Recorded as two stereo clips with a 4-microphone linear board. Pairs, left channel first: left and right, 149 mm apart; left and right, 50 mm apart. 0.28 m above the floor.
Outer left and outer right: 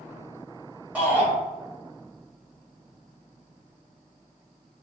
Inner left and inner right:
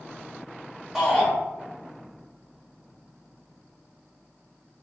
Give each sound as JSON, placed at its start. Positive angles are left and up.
{"t": 0.9, "sound": "a shout", "side_deg": -10, "distance_m": 1.2}